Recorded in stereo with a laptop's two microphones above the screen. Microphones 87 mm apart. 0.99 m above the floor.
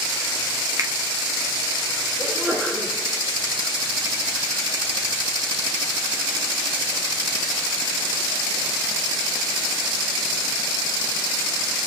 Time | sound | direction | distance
0.8 | a finger snap | 40° right (ahead or behind) | 1.3 m
2.2 | a sneeze | 5° right (ahead or behind) | 4.5 m